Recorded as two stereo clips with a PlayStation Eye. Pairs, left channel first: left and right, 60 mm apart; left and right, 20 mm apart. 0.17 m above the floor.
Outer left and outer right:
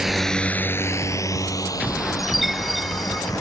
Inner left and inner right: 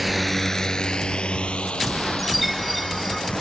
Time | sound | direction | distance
0.0 | a drone | 5° right (ahead or behind) | ?
2.2 | a chime | centre (ahead or behind) | ?